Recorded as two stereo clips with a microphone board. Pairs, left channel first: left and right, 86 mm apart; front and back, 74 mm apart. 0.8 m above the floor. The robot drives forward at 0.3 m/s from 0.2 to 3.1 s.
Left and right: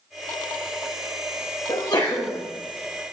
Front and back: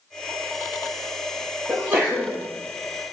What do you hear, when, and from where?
1.7 s a sneeze: 120° left, 1.2 m; by 2.4 s 130° left, 1.3 m